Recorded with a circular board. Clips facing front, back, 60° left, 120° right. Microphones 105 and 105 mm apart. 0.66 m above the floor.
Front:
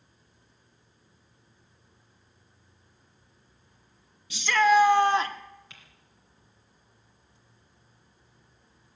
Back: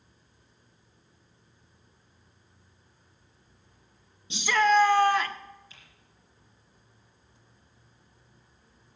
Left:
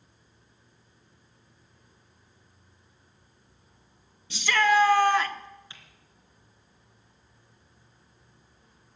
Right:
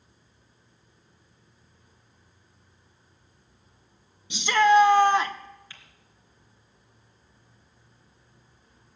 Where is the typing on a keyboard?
10° right, 2.5 m.